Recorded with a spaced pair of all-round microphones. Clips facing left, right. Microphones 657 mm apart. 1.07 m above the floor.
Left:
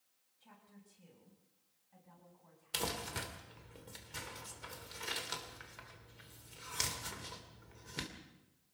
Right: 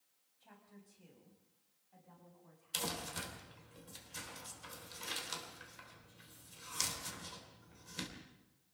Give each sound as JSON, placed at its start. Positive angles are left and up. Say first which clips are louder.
{"t": 0.4, "sound": "a woman speaking", "louder": "right 1 dB", "side_deg": 30, "distance_m": 7.0}
{"t": 2.7, "sound": "crumpling", "louder": "left 2 dB", "side_deg": 70, "distance_m": 3.0}